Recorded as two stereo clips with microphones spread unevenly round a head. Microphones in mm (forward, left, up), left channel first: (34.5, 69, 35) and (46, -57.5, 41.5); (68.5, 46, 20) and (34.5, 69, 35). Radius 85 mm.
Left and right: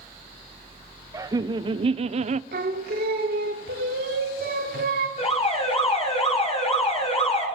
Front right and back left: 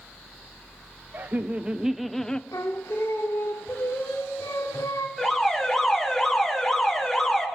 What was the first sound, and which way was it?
Laughter, 150° right.